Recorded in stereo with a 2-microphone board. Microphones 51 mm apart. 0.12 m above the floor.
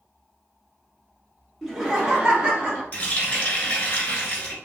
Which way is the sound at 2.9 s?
25° left (ahead or behind).